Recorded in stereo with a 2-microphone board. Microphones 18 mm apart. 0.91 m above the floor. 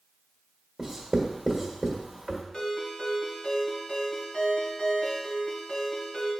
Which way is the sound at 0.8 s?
15° right (ahead or behind).